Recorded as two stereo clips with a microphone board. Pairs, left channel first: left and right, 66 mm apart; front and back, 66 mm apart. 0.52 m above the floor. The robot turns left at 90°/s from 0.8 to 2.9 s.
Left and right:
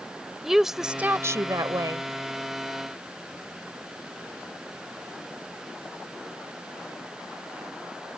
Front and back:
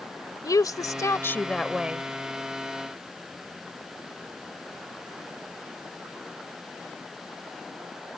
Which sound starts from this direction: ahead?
A woman speaking, at 0.4 s.